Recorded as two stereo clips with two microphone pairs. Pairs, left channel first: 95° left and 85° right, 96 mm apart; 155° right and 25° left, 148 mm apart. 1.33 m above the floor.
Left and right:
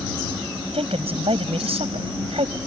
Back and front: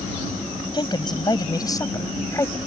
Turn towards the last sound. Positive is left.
turn(degrees=-80)